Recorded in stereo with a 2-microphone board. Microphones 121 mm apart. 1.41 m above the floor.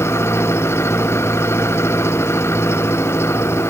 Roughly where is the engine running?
Left.